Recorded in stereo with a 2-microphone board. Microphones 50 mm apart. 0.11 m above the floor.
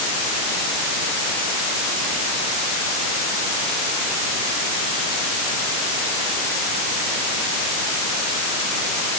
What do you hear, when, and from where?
Only background noise.